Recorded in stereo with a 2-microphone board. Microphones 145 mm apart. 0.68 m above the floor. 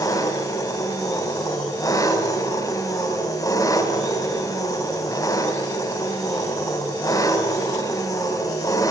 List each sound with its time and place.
0.0 s an engine running: 25° left (ahead or behind), 1.9 m